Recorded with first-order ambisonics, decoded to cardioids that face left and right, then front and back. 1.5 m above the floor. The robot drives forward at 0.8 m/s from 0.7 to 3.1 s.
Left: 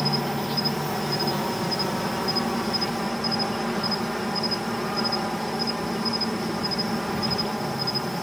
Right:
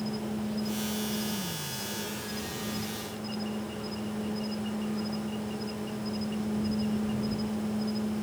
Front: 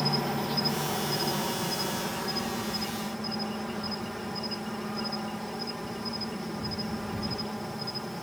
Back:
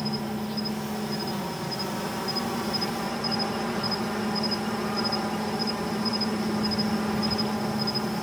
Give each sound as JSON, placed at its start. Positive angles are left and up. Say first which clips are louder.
{"t": 0.0, "sound": "an insect", "louder": "left 10 dB, front 3 dB", "azimuth_deg": 70}